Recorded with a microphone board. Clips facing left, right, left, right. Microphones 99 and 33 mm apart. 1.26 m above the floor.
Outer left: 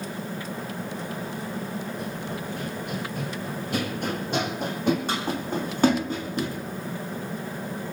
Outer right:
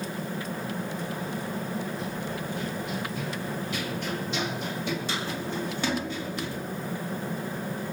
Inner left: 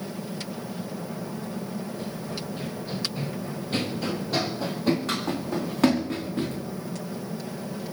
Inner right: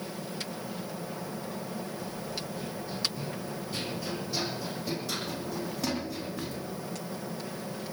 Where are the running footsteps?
70° left (ahead or behind), 3.5 m; by 6.6 s 50° left (ahead or behind), 5.5 m.